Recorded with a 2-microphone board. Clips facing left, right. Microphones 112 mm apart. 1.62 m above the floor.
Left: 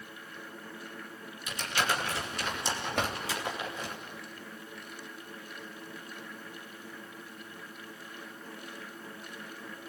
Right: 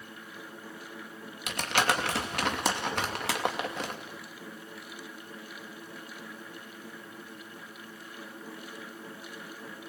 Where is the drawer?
60° left (ahead or behind), 2.5 m.